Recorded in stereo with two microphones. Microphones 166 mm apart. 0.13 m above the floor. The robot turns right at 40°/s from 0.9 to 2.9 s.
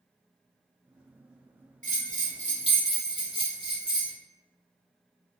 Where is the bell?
90° right, 1.6 m; by 4.1 s 50° right, 1.6 m.